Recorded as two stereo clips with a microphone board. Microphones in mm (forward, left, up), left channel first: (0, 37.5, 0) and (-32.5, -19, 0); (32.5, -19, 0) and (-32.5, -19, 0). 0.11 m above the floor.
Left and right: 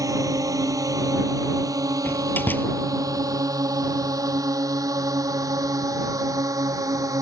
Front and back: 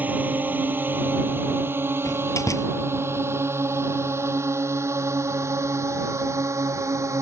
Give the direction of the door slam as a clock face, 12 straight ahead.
12 o'clock.